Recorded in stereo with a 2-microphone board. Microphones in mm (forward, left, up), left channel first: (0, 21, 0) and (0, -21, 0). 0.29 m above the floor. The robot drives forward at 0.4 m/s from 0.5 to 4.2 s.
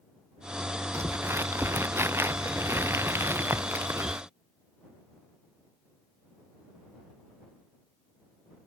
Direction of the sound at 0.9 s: 85° right.